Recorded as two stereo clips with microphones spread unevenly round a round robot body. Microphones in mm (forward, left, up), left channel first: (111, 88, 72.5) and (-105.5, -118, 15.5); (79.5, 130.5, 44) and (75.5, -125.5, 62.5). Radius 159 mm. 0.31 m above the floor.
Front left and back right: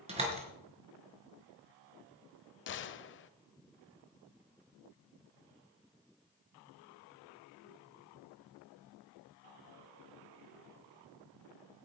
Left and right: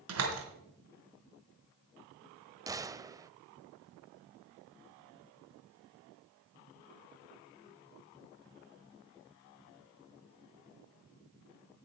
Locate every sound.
0.1 s a door slam: 70° right, 3 m
2.7 s a gunshot: 10° right, 0.6 m